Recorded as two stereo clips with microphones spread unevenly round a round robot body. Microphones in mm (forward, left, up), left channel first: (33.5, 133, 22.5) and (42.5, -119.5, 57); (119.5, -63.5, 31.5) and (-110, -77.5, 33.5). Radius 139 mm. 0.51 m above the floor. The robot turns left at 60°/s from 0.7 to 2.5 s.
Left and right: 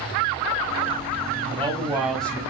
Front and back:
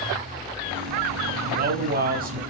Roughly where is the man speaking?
Behind right.